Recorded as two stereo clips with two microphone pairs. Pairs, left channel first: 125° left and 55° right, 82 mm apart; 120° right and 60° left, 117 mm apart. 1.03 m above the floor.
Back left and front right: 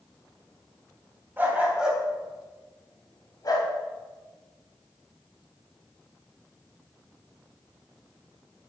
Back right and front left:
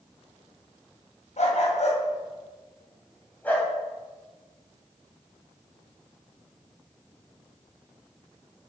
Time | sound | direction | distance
1.4 | a dog barking | 120° right | 2.5 m